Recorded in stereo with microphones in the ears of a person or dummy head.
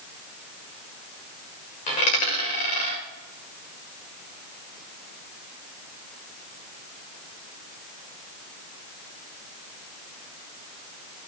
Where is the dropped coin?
35° left (ahead or behind), 1.7 m.